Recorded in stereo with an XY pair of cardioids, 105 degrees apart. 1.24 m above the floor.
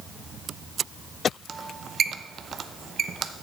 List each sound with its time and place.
1.5 s a squeak: 45° right, 0.6 m